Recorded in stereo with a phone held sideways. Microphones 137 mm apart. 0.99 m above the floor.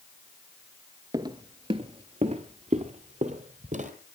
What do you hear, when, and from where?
1.1 s footsteps: 30° right (ahead or behind), 1.1 m; by 3.9 s 65° right (ahead or behind), 2 m